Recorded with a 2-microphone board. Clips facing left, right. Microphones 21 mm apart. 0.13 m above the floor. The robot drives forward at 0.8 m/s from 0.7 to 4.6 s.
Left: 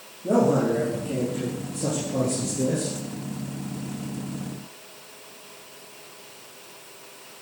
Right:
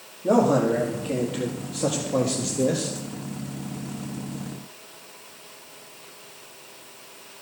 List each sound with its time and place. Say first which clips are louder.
0.2 s a man speaking: right 1 dB; 50° right (ahead or behind), 4 m; by 2.9 s 65° right (ahead or behind), 3.5 m